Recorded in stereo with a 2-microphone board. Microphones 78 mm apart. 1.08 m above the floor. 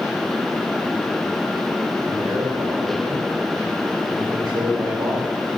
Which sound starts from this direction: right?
A man speaking, at 2.0 s.